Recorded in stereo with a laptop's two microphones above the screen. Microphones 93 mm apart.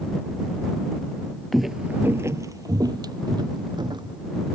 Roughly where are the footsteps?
Centre.